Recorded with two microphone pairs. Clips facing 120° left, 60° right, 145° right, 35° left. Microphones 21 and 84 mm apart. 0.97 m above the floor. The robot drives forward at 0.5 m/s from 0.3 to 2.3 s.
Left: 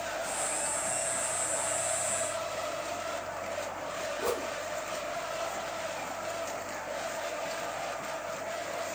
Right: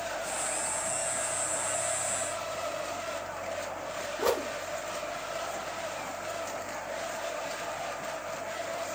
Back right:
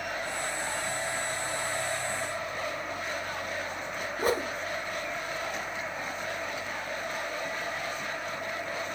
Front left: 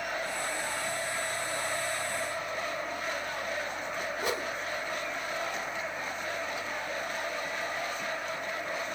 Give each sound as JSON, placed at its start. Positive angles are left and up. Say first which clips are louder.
{"t": 4.2, "sound": "a whoosh", "louder": "right 5 dB, back right 7 dB", "azimuth_deg": -100, "distance_m": 1.0}